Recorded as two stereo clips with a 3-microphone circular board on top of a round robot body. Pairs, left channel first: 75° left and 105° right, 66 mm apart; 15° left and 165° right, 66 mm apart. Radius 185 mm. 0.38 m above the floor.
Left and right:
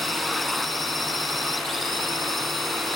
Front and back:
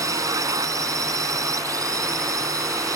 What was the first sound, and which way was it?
A drone, 165° left.